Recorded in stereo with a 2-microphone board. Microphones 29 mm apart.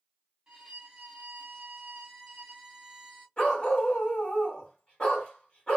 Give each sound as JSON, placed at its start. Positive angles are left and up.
{"t": 0.5, "sound": "a violin", "side_deg": -25, "distance_m": 1.3}
{"t": 3.4, "sound": "a dog barking", "side_deg": 35, "distance_m": 1.8}